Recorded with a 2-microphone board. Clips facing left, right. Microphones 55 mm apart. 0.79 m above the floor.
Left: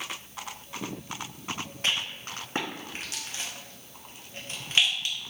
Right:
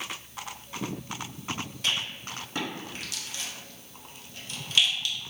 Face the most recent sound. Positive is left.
turn(degrees=35)  # may be behind; listen again after turning